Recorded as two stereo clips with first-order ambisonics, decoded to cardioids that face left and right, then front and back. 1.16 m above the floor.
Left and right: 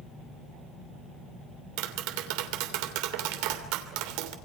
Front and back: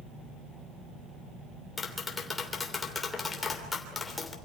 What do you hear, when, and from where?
1.8 s tapping: 75° right, 3 m